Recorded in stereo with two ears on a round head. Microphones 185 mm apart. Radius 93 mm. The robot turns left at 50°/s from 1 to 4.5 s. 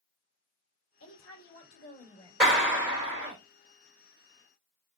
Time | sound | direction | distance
1.0 | a woman speaking | 85° left | 1.9 m
2.4 | a clap | 5° left | 1.9 m